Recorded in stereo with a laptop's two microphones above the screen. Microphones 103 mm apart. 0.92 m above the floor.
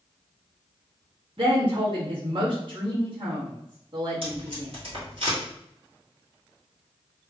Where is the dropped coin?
I don't hear a dropped coin.